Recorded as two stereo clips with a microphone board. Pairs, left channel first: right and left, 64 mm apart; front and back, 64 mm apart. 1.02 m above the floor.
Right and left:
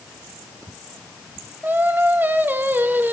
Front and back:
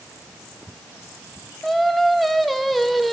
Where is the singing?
90° left, 0.6 m.